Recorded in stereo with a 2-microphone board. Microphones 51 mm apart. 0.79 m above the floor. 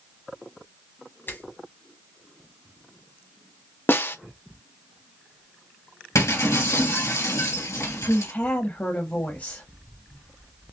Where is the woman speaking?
40° left (ahead or behind), 1.1 m.